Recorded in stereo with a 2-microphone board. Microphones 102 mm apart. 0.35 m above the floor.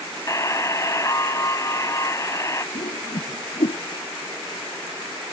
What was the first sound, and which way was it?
A buzzer, 30° left (ahead or behind).